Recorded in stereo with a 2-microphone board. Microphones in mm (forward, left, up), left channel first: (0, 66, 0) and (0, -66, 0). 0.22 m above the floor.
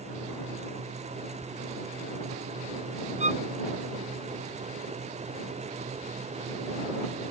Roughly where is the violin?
Right.